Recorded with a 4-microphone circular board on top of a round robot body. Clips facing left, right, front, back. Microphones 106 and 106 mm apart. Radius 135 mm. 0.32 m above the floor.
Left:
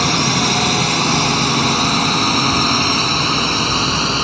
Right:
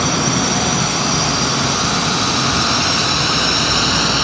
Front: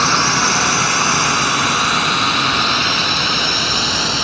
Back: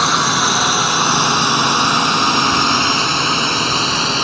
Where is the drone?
100° left; by 4.2 s 135° left.